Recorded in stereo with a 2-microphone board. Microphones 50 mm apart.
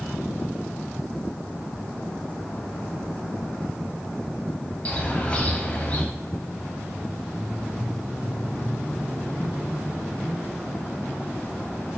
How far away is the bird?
About 0.8 m.